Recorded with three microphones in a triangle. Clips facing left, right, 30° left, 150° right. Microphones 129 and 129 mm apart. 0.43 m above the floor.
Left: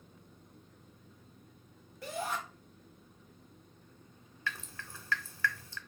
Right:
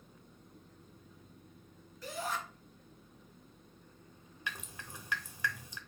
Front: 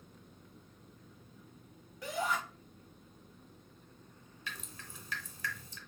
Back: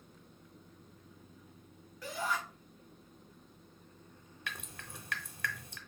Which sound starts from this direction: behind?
Dripping, at 4.5 s.